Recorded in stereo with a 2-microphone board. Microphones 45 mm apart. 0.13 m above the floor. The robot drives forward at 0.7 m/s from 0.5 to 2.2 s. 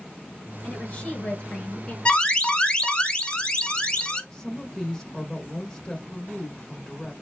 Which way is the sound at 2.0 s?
25° left (ahead or behind).